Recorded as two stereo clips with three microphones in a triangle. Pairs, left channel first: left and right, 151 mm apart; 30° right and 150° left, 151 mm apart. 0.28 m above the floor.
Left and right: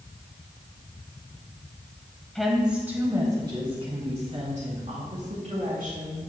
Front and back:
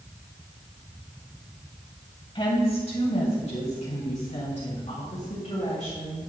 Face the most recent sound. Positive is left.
turn(degrees=-75)